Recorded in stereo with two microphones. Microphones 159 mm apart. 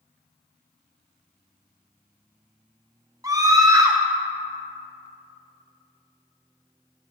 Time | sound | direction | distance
3.2 | a scream | 20° right (ahead or behind) | 1.0 m